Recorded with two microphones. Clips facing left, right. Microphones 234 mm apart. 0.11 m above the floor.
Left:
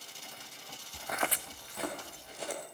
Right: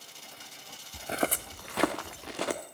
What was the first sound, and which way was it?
Footsteps, 15° right (ahead or behind).